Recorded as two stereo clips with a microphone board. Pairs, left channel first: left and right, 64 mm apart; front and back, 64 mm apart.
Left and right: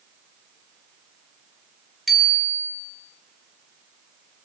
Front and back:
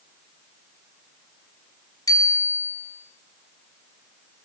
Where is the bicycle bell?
Straight ahead, 4 m.